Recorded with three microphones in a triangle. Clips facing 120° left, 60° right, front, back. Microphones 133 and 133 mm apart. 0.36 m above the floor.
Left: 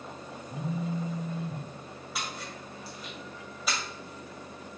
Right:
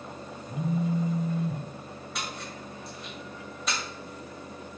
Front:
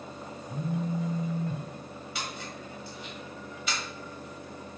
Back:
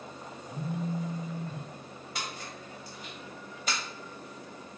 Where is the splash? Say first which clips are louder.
Even, front 1 dB; 155° right, 2 m.